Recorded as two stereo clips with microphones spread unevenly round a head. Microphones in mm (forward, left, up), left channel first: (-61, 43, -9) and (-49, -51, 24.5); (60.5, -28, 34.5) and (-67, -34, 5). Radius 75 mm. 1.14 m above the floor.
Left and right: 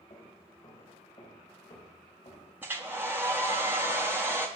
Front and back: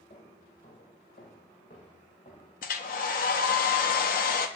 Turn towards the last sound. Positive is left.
turn(degrees=-5)